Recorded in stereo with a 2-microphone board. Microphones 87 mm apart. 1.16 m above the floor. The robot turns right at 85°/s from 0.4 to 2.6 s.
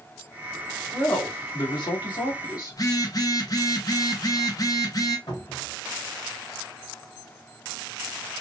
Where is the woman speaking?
5° right, 1.9 m; by 2.8 s 135° left, 1.9 m.